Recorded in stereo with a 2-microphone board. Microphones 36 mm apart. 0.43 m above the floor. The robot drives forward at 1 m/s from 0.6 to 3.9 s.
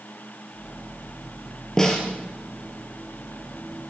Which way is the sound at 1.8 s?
15° left (ahead or behind).